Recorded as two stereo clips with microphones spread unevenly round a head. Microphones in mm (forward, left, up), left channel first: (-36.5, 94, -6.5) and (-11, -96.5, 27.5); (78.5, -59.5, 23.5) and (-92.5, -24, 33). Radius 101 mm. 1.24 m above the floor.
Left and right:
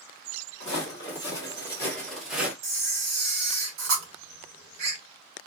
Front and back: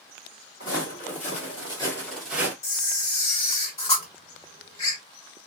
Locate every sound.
0.6 s footsteps: 25° left, 2 m; by 2.5 s 135° right, 1.3 m
2.6 s a camera shutter: 60° right, 1.6 m